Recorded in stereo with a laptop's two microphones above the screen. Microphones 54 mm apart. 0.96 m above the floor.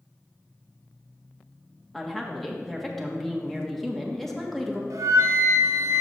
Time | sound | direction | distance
1.9 | a woman speaking | 5° left (ahead or behind) | 1.6 m
4.9 | a flute | 80° right | 0.8 m